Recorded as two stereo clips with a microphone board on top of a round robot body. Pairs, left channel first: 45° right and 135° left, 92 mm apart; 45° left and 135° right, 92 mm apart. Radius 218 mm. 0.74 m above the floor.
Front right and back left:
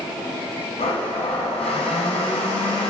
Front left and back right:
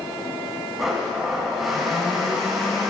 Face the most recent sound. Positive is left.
turn(degrees=-50)